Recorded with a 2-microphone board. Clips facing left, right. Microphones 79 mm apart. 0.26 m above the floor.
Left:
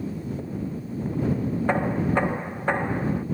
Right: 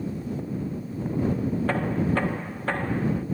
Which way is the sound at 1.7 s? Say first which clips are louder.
Left 4 dB; 20° left (ahead or behind).